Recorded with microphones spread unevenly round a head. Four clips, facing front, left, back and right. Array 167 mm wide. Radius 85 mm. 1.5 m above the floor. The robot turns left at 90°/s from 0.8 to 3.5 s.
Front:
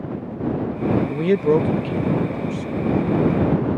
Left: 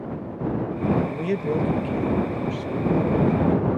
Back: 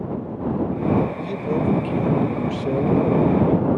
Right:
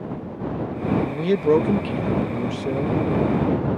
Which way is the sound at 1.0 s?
5° left.